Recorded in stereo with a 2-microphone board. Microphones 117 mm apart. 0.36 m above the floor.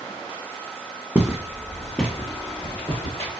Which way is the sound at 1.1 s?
10° right (ahead or behind).